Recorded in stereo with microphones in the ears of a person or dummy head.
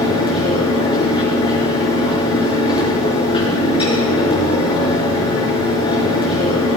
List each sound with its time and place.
0.0 s a fan: 30° left (ahead or behind), 5 m